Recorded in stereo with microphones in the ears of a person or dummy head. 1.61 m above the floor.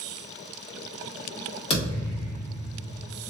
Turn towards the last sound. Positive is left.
turn(degrees=30)  # may be behind; listen again after turning